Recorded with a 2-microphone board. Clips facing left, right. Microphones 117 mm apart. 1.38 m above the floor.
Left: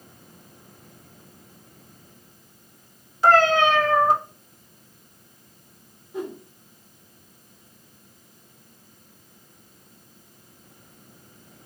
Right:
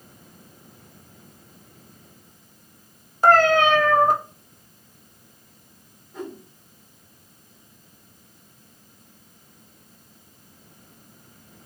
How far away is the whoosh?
About 1.4 m.